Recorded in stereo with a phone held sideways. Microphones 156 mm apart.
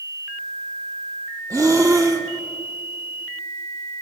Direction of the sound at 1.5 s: 20° right (ahead or behind).